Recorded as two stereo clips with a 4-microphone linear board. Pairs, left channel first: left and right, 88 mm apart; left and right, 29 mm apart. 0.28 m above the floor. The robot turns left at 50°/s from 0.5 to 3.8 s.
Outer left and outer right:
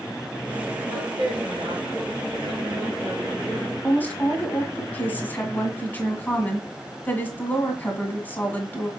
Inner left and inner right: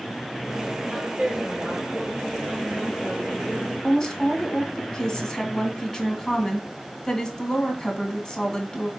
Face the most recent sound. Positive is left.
turn(degrees=20)  # may be behind; listen again after turning